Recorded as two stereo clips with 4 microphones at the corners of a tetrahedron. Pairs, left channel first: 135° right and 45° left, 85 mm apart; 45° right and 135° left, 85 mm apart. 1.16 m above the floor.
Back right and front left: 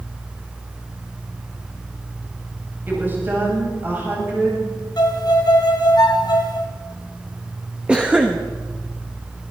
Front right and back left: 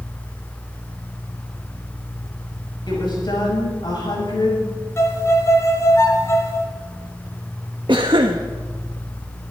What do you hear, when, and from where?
2.9 s a woman speaking: 20° right, 7.5 m
5.0 s a violin: 100° right, 1.7 m
7.9 s a cough: 120° left, 1.1 m